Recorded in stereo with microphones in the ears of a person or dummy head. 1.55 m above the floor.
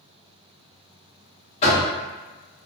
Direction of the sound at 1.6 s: 35° left (ahead or behind).